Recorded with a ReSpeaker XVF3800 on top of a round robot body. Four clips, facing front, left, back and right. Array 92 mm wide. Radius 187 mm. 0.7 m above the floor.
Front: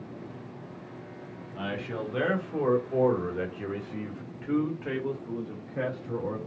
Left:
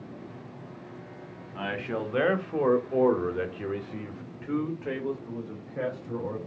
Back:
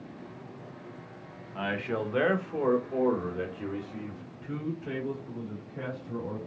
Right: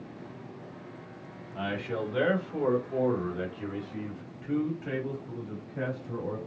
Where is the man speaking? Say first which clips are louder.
Left 1 dB, back 3 dB; 140° left, 1.5 m; by 6.4 s 25° left, 2.5 m.